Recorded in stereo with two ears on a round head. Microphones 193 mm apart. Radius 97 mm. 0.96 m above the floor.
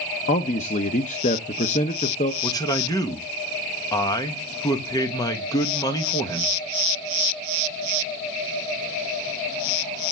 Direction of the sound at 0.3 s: 35° left (ahead or behind).